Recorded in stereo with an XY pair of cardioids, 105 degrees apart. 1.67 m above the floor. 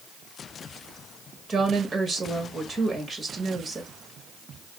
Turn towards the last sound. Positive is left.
turn(degrees=-25)